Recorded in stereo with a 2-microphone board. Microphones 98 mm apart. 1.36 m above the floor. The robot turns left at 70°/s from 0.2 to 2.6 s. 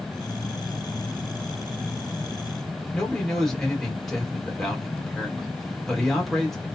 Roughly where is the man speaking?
Centre.